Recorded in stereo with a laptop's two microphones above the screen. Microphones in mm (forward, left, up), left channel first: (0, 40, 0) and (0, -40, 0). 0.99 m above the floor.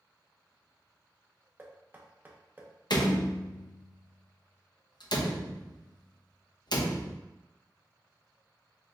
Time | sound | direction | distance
1.6 | knocking | 25° right (ahead or behind) | 0.8 m
2.9 | a door slam | 65° left (ahead or behind) | 0.5 m